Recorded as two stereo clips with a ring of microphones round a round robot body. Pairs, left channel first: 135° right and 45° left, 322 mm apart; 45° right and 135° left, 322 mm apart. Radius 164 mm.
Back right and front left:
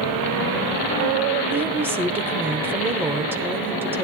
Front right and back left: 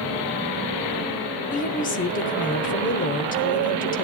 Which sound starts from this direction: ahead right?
A woman speaking, at 1.5 s.